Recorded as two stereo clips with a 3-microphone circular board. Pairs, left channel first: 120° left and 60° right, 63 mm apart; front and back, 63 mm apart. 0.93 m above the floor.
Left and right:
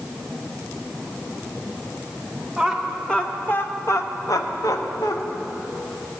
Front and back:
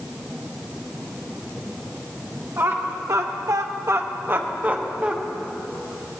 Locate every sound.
2.6 s laughter: 150° right, 1.0 m; by 5.2 s 115° left, 1.4 m